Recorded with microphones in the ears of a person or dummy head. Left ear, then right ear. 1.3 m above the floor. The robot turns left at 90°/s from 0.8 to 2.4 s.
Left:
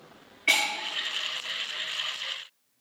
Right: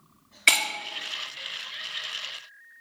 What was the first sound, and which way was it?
Breaking glass, 55° right (ahead or behind).